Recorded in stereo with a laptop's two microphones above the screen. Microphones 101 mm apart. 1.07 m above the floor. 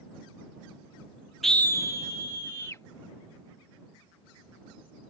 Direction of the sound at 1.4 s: Centre (ahead or behind).